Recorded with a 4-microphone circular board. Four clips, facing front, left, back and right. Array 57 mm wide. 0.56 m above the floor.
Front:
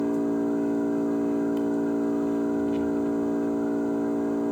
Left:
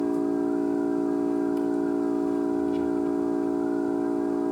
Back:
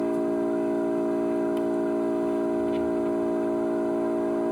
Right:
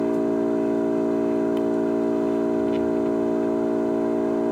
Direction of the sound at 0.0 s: 105° right.